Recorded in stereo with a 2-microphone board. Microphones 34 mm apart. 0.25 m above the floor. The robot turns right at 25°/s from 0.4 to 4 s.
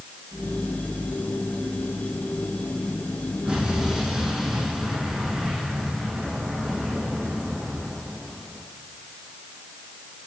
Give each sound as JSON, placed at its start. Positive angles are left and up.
{"t": 3.5, "sound": "an explosion", "side_deg": -35, "distance_m": 8.5}